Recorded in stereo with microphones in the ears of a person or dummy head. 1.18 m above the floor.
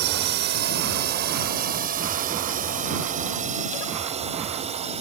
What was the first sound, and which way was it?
A drone, 55° right (ahead or behind).